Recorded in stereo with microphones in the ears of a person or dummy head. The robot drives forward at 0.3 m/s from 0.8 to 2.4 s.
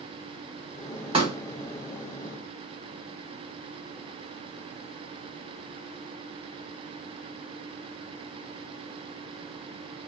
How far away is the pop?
About 0.9 m.